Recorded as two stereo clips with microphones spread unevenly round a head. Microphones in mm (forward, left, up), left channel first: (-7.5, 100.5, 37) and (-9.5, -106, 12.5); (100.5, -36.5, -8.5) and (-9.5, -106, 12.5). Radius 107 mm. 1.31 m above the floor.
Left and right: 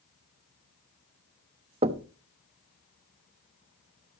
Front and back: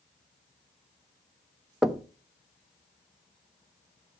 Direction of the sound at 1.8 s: 100° right.